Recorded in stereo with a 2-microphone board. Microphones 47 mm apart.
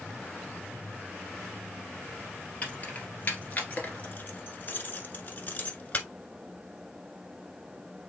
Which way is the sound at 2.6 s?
30° left (ahead or behind).